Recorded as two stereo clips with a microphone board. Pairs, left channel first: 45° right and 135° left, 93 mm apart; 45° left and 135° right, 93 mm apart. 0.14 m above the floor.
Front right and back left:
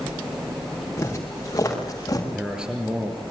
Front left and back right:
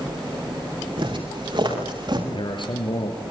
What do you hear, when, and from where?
1.0 s footsteps: 105° right, 7 m; by 2.2 s 100° right, 7.5 m
2.3 s a man speaking: 55° left, 3.5 m